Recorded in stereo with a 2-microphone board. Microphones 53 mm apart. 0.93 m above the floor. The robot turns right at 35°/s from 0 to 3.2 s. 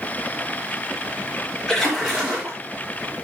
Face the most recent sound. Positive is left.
turn(degrees=-130)